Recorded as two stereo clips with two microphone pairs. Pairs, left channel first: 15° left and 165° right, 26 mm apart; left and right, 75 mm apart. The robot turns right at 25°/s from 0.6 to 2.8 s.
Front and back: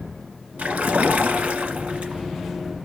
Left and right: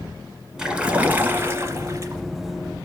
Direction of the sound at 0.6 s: 175° right.